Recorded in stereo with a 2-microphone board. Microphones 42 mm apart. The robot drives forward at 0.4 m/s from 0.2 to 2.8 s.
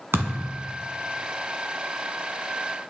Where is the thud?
70° right (ahead or behind), 1.8 m.